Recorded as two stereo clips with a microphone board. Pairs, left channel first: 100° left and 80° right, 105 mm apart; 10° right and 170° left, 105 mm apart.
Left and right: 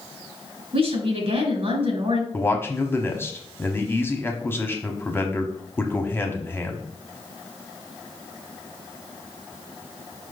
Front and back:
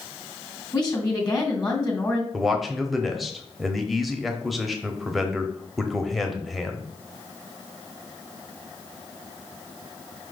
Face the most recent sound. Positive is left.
turn(degrees=85)